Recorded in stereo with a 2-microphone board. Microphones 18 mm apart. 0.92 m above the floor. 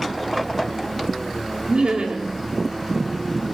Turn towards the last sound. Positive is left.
turn(degrees=-65)  # may be behind; listen again after turning